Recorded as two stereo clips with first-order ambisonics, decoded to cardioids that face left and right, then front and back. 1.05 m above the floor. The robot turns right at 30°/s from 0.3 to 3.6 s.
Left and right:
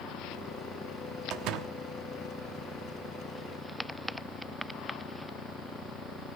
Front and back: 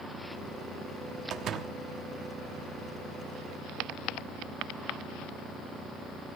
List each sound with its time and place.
1.3 s a door slam: 135° right, 1.1 m; by 1.7 s 120° right, 1.1 m